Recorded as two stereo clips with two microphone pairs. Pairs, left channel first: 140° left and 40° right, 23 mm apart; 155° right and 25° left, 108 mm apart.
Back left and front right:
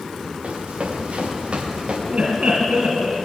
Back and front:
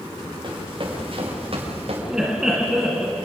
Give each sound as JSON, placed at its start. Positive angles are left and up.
{"t": 0.4, "sound": "running footsteps", "azimuth_deg": -15, "distance_m": 6.0}
{"t": 2.1, "sound": "laughter", "azimuth_deg": -60, "distance_m": 2.0}